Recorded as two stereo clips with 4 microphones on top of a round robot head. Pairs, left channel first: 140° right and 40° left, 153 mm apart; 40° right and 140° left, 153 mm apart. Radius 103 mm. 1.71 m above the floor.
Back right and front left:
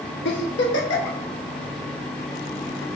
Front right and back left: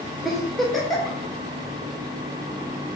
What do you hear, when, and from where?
0.2 s a giggle: 130° right, 0.6 m